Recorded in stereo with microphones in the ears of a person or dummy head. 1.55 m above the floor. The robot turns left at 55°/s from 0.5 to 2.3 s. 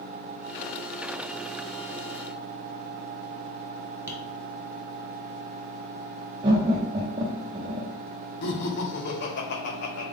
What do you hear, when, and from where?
4.1 s tapping: 15° right (ahead or behind), 1.3 m
6.4 s laughter: 25° right (ahead or behind), 0.5 m
8.4 s laughter: 65° left (ahead or behind), 1.2 m